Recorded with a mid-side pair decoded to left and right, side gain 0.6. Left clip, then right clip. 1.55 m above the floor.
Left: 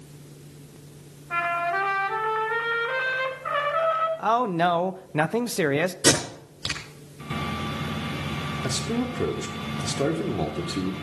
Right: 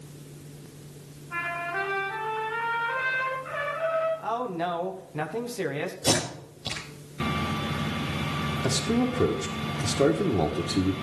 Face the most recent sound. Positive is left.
turn(degrees=-15)